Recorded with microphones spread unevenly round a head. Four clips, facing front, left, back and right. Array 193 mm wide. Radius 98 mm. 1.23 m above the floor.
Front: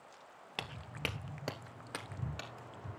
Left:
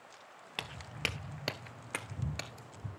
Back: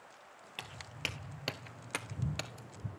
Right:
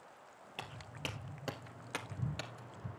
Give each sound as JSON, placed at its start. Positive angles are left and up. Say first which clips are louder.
{"t": 0.6, "sound": "footsteps", "louder": "left 4 dB, front 3 dB", "azimuth_deg": 20, "distance_m": 1.5}